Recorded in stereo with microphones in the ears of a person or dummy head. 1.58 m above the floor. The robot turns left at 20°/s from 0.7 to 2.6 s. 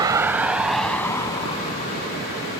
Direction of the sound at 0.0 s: 20° right (ahead or behind).